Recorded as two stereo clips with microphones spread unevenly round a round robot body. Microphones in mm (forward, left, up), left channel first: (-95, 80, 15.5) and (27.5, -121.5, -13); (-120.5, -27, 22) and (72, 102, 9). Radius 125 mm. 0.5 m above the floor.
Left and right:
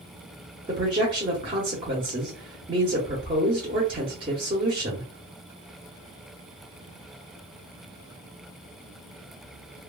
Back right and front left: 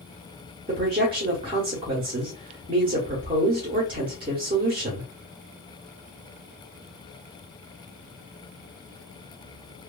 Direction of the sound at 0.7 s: 15° right.